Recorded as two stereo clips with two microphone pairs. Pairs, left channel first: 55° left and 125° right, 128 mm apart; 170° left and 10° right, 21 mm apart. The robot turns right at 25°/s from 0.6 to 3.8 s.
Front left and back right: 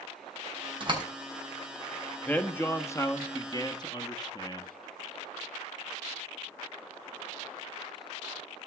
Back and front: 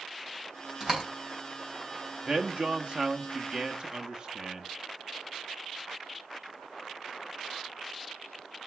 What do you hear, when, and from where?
0.8 s a door slam: 80° right, 4 m; by 1.0 s 70° right, 4 m
2.2 s a man speaking: 20° right, 1.1 m; by 4.7 s 20° left, 1.1 m